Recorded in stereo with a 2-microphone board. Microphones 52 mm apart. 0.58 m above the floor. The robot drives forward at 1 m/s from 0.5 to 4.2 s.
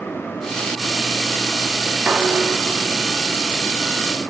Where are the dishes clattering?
30° right (ahead or behind), 3 m; by 3.8 s 20° right (ahead or behind), 4.5 m.